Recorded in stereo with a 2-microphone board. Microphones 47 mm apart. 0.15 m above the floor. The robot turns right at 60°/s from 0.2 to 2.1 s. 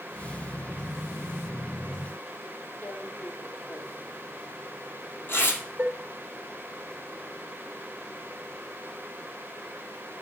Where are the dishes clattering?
30° right (ahead or behind), 1.1 m.